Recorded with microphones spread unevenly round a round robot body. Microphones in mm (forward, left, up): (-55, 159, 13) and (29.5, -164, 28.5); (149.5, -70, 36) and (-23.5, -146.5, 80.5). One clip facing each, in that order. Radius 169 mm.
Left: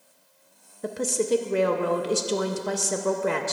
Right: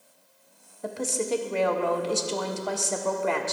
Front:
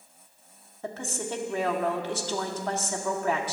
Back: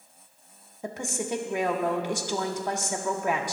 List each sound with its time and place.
0.8 s a woman speaking: 110° left, 0.6 m